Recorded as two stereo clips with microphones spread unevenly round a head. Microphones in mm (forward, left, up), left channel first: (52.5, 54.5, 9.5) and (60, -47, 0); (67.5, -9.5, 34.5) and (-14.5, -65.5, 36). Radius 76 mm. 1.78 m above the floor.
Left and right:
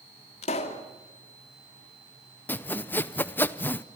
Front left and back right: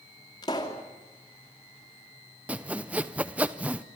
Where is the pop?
100° left, 2.5 m.